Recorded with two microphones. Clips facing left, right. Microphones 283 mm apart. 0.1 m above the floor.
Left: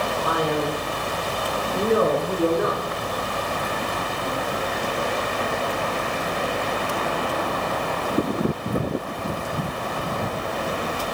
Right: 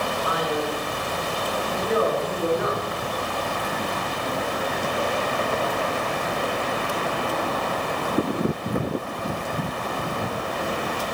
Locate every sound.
0.2 s a man speaking: 50° left (ahead or behind), 4 m; by 2.9 s 45° left (ahead or behind), 6.5 m